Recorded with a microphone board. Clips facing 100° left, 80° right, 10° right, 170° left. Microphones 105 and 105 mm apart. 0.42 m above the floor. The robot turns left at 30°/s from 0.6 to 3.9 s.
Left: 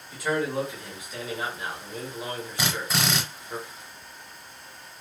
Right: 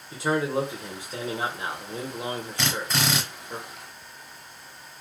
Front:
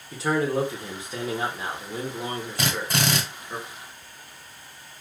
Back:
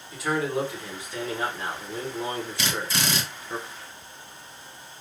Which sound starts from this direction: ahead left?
A drill, at 2.6 s.